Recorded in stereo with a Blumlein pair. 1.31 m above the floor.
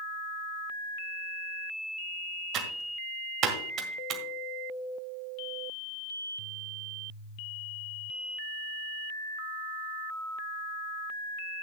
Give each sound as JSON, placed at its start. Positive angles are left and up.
{"t": 2.5, "sound": "typing on a keyboard", "azimuth_deg": -35, "distance_m": 1.7}